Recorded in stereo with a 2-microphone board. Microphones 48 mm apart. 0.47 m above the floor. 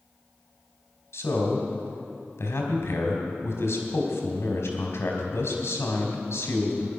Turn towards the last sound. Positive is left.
turn(degrees=65)  # may be behind; listen again after turning